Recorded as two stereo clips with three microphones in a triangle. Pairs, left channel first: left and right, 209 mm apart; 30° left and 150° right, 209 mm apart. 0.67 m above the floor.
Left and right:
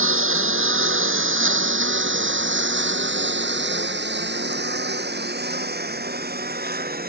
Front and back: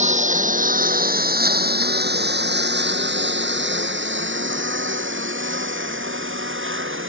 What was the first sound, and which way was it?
A lawn mower, 95° right.